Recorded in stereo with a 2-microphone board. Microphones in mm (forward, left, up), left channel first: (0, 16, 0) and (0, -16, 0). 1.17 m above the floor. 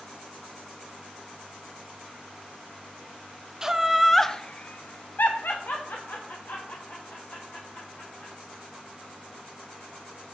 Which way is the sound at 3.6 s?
20° right (ahead or behind).